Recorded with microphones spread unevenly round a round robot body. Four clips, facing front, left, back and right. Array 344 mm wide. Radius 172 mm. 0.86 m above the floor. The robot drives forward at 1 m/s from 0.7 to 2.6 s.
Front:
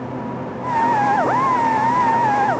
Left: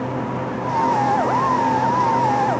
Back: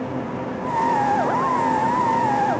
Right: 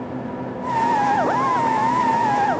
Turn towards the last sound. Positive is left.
No sound to turn to.